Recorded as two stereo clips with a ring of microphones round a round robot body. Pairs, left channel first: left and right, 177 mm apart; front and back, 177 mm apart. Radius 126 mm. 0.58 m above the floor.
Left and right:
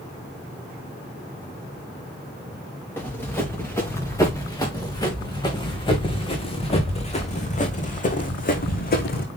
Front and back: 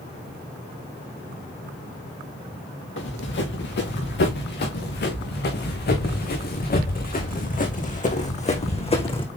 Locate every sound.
3.0 s running footsteps: 10° left, 4.5 m; by 9.3 s 60° left, 2.5 m